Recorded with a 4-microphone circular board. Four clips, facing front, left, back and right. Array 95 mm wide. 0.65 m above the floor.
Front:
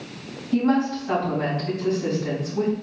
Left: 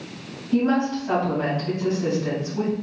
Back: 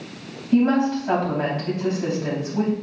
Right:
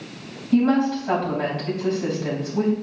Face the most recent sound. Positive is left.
turn(degrees=-155)